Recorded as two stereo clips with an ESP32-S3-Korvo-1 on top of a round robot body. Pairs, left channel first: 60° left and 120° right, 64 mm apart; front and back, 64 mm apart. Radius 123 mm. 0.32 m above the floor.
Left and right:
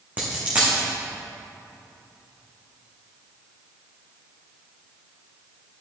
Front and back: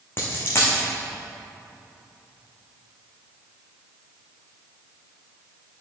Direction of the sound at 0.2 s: 55° right.